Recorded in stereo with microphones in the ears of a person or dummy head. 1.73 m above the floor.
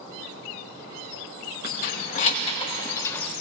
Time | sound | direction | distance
1.6 | keys jangling | 55° left (ahead or behind) | 1.5 m